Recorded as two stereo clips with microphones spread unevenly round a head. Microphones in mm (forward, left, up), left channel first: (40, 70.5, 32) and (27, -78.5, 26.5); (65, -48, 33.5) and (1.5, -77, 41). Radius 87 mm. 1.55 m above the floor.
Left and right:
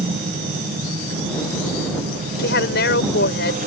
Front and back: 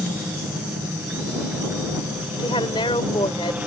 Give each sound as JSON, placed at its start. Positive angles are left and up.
{"t": 0.0, "sound": "a helicopter", "azimuth_deg": -90}
{"t": 2.4, "sound": "a woman speaking", "azimuth_deg": 75}